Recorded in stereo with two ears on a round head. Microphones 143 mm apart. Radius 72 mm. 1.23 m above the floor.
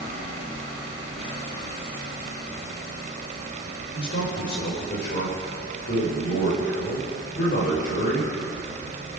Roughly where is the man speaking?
Left.